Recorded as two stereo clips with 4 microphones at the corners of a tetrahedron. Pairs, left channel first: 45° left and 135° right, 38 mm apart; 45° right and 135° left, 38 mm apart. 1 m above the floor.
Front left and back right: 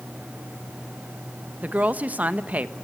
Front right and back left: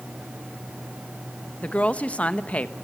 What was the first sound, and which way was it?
A woman speaking, 95° right.